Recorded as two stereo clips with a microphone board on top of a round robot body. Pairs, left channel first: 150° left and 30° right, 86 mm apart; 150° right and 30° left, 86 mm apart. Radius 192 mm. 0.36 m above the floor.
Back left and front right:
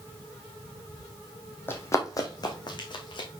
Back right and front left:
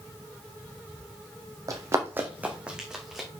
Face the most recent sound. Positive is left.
turn(degrees=120)